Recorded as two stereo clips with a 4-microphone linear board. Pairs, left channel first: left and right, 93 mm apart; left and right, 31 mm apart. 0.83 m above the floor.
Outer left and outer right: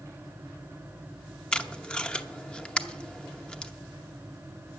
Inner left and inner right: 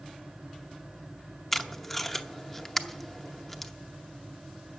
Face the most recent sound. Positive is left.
turn(degrees=10)  # may be behind; listen again after turning